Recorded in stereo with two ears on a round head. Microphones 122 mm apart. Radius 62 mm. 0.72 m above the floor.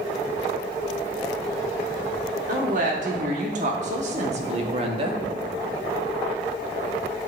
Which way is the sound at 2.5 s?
60° right (ahead or behind).